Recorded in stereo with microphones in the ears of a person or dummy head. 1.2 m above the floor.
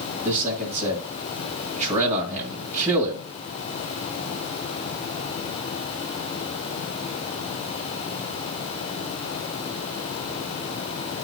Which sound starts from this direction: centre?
A man speaking, at 0.2 s.